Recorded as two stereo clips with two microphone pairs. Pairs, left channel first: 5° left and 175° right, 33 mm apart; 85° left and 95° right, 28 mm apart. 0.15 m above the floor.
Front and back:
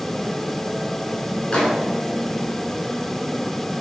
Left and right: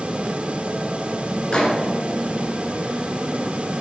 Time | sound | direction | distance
1.5 | a microwave | 45° left | 1.8 m